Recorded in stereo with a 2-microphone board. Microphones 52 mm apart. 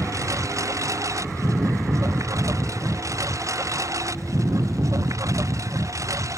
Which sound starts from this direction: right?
A lawn mower, at 0.0 s.